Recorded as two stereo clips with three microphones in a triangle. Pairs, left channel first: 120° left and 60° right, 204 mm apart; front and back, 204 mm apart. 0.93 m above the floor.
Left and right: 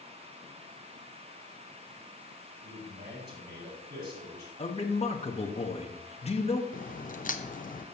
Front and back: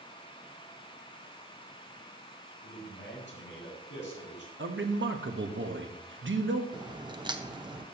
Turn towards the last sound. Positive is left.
turn(degrees=125)